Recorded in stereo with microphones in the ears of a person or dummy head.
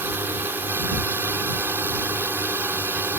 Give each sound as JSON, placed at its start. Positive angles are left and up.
{"t": 0.0, "sound": "a drone", "side_deg": -10}